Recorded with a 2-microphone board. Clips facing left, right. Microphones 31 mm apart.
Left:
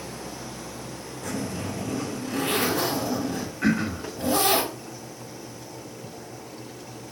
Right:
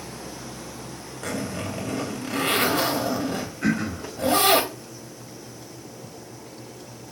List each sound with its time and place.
1.2 s a zipper: 70° right (ahead or behind), 1.8 m
3.6 s throat clearing: 20° left (ahead or behind), 1.3 m